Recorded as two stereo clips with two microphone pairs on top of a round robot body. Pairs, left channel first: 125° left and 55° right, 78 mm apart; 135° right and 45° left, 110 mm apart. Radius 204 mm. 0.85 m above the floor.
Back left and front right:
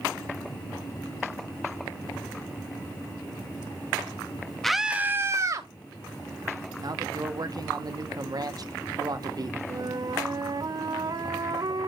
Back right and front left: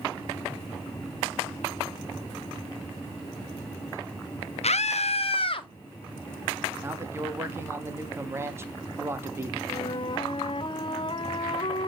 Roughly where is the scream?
Behind right.